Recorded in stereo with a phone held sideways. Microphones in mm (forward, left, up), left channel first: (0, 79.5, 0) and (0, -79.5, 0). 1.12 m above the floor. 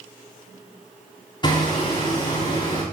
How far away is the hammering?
About 6.5 m.